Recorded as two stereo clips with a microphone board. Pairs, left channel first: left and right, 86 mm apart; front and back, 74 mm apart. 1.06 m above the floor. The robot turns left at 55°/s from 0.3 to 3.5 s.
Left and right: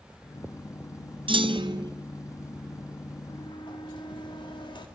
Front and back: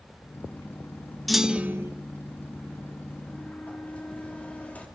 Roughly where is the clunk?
Right.